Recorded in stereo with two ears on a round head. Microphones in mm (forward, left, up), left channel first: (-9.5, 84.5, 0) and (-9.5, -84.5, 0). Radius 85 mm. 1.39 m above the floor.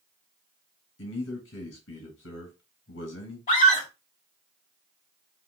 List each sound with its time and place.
1.0 s a man speaking: 70° left (ahead or behind), 2.5 m
3.5 s a scream: 45° left (ahead or behind), 2 m